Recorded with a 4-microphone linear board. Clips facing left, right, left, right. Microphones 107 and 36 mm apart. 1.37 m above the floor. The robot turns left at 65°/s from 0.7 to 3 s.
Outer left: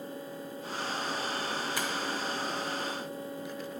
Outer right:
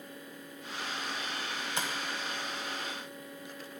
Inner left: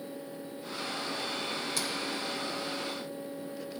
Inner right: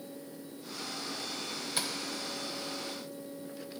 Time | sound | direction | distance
1.8 | tapping | 25° right (ahead or behind) | 0.8 m